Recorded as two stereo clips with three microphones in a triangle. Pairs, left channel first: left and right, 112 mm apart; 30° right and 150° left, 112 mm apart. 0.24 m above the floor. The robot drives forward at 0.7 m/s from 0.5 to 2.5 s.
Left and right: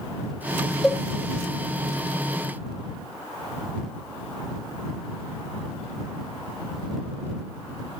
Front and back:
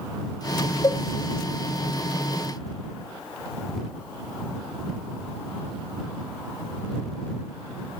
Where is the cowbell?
5° left, 0.8 m.